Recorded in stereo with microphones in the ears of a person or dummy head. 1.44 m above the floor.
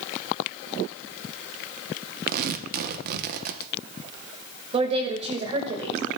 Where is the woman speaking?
30° right (ahead or behind), 1.6 m.